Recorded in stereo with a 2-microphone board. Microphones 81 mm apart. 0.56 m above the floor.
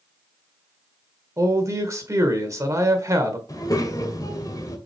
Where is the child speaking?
45° left (ahead or behind), 1.9 m.